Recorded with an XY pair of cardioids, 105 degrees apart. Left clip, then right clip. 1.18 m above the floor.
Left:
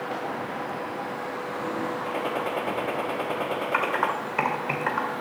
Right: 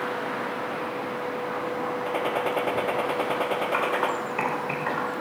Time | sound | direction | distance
2.1 | a gunshot | 20° right | 1.3 m
3.7 | typing on a keyboard | 25° left | 2 m